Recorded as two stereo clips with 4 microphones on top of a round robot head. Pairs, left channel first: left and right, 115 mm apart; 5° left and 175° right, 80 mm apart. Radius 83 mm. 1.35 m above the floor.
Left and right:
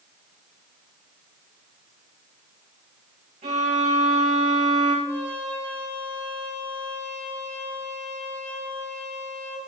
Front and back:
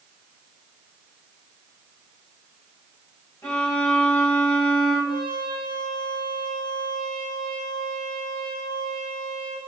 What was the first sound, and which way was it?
A violin, 65° right.